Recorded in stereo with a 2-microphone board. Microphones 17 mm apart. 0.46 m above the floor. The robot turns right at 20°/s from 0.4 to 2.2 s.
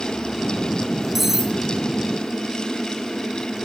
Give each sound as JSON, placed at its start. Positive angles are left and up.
{"t": 1.1, "sound": "cutlery clinking", "side_deg": -20, "distance_m": 0.6}